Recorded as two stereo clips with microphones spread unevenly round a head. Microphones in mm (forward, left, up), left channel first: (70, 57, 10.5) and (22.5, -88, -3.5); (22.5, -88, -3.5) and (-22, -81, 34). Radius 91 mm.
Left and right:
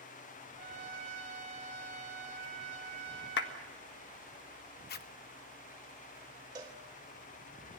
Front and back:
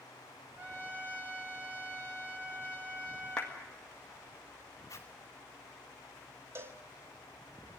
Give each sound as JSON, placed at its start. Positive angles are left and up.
{"t": 0.6, "sound": "a trumpet", "azimuth_deg": -160, "distance_m": 3.0}
{"t": 3.4, "sound": "a clap", "azimuth_deg": 65, "distance_m": 1.7}
{"t": 4.9, "sound": "a zipper", "azimuth_deg": 60, "distance_m": 1.0}
{"t": 6.5, "sound": "a cowbell", "azimuth_deg": 180, "distance_m": 1.1}